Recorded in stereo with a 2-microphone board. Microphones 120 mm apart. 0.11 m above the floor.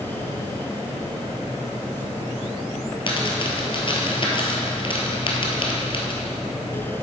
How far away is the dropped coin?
About 1.3 m.